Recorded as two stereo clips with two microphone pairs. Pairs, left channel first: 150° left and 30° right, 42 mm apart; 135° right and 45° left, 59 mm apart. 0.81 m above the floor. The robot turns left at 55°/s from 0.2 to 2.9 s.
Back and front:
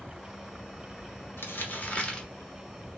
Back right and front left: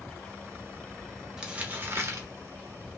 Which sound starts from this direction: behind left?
Crumpling, at 1.4 s.